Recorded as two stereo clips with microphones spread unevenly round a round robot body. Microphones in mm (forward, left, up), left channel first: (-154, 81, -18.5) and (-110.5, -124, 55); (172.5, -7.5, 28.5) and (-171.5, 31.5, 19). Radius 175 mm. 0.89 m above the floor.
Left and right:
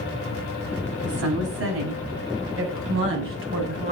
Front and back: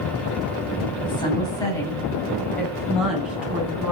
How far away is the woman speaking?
About 7.5 m.